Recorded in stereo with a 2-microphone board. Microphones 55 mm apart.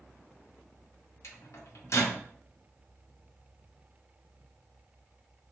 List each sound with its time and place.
1.2 s a microwave: 60° left (ahead or behind), 0.7 m